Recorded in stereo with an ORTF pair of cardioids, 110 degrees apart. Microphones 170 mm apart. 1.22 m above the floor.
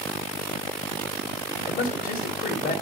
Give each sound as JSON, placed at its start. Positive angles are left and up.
{"t": 1.7, "sound": "a man speaking", "azimuth_deg": 55, "distance_m": 3.5}